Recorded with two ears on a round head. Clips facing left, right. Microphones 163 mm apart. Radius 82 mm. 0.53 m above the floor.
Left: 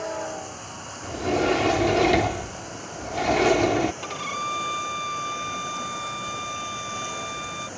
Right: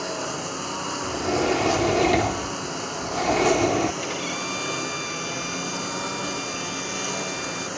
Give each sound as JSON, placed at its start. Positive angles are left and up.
{"t": 0.0, "sound": "a lawn mower", "side_deg": -70}
{"t": 1.0, "sound": "a sliding door", "side_deg": 0}
{"t": 4.0, "sound": "a violin", "side_deg": -15}